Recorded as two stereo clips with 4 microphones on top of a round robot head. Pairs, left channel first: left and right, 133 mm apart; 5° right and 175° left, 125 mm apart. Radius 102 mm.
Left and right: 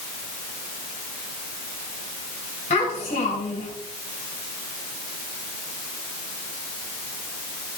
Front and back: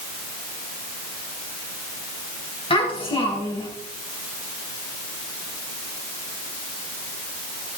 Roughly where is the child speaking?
Ahead left.